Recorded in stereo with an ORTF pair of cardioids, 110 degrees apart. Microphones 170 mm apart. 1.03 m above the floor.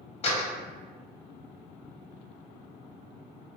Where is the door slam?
40° left, 0.7 m.